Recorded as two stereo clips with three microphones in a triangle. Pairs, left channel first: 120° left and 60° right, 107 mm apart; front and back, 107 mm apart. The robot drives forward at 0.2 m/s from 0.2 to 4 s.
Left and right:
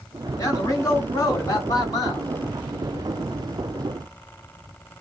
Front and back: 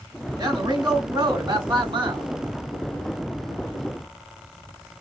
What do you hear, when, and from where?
0.4 s a man speaking: 155° left, 1.9 m; by 2.3 s 160° left, 2 m